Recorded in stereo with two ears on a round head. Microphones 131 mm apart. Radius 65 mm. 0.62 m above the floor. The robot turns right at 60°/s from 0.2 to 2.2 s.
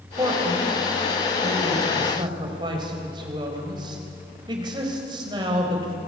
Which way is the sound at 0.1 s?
25° right (ahead or behind).